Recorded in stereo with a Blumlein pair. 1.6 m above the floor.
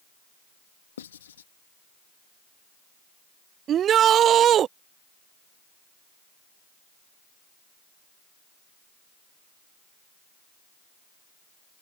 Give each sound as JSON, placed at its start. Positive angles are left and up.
{"t": 1.0, "sound": "writing", "azimuth_deg": 65}
{"t": 3.7, "sound": "a shout", "azimuth_deg": -30}